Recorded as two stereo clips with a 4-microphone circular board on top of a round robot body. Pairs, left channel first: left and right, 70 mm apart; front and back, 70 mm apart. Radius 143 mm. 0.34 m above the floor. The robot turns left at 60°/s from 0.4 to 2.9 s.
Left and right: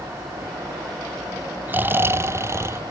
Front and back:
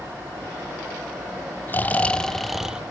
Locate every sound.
1.7 s snoring: 40° right, 0.8 m; by 2.8 s 110° right, 0.8 m